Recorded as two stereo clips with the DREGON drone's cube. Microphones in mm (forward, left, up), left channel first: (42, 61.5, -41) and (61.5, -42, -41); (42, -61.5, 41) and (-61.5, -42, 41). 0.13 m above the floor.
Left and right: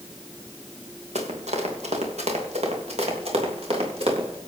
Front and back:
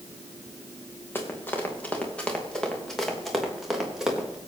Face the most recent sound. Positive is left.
turn(degrees=-110)